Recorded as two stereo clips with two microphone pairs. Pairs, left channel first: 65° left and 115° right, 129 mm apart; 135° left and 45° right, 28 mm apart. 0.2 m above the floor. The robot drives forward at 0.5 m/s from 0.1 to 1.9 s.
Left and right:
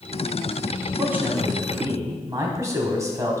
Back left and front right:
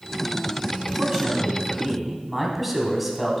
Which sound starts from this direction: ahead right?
A man speaking, at 1.0 s.